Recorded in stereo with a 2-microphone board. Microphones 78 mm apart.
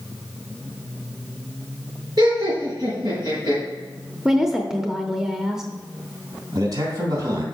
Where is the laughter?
75° right (ahead or behind), 4 m.